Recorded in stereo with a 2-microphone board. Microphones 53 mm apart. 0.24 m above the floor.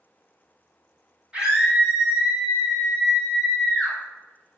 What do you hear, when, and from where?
1.3 s a scream: 15° right (ahead or behind), 1.8 m; by 4.0 s 20° left (ahead or behind), 1.2 m